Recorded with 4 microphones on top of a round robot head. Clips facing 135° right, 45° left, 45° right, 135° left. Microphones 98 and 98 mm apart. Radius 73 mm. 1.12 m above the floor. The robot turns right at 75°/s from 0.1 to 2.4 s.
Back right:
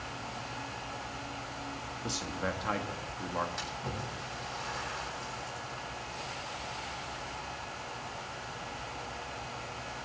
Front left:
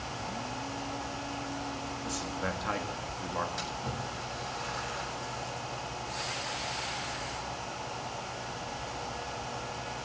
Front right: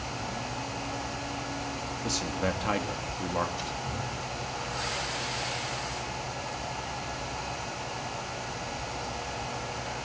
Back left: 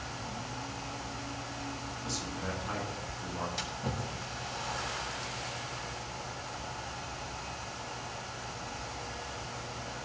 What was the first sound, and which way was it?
A man speaking, 75° right.